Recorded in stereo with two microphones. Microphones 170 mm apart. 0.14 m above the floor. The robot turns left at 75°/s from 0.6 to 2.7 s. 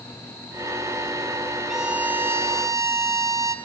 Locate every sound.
1.7 s a violin: centre (ahead or behind), 0.6 m; by 3.5 s 20° right (ahead or behind), 0.6 m